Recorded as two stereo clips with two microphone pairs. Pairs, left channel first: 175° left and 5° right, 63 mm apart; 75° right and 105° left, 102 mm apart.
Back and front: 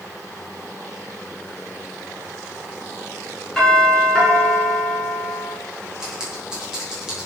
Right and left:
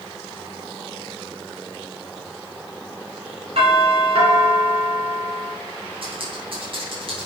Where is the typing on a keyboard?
75° left, 3.5 m.